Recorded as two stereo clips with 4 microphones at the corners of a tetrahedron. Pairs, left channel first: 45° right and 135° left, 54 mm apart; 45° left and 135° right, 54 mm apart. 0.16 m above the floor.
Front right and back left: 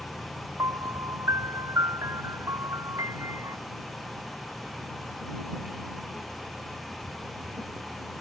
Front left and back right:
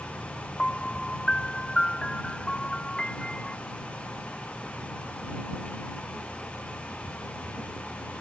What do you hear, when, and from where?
0.6 s a piano: 120° left